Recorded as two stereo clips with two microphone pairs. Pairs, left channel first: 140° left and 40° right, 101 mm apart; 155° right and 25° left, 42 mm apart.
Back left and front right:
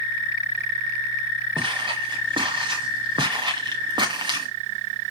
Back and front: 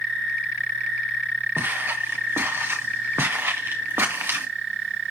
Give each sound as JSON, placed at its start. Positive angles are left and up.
{"t": 1.6, "sound": "footsteps", "azimuth_deg": -10, "distance_m": 3.5}